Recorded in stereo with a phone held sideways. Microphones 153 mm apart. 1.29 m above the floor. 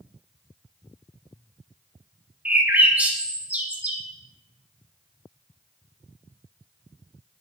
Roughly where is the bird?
Centre.